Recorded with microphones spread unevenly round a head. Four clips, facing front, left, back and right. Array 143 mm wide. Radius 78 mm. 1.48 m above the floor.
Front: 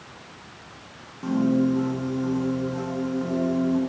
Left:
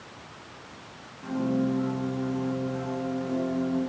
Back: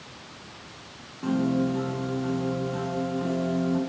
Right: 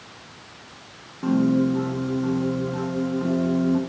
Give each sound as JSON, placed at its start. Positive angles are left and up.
{"t": 1.2, "sound": "a piano", "azimuth_deg": -95, "distance_m": 6.5}